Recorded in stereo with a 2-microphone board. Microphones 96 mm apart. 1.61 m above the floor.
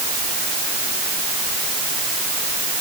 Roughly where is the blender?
I don't hear a blender.